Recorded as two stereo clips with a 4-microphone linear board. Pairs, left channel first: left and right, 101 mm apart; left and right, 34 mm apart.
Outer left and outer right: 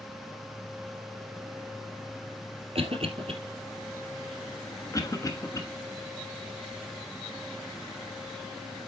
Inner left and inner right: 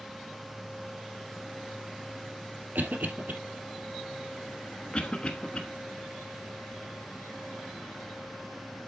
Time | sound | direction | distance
2.8 | a cough | 65° right (ahead or behind) | 3 m
4.9 | a cough | 35° left (ahead or behind) | 1.2 m